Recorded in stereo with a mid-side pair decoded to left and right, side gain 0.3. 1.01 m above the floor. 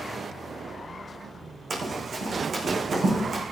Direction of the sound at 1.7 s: 60° right.